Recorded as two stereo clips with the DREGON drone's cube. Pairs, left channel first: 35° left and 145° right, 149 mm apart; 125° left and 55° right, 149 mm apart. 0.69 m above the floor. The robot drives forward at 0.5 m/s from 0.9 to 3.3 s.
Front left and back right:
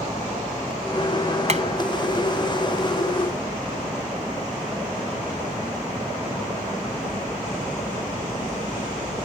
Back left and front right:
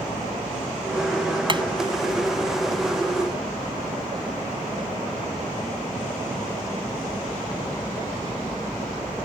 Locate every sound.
1.5 s hammering: 110° right